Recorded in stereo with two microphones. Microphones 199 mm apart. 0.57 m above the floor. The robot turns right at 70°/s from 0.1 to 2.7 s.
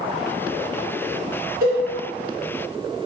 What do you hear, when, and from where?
1.6 s a cowbell: 50° right (ahead or behind), 1.2 m; by 1.8 s 45° right (ahead or behind), 1.2 m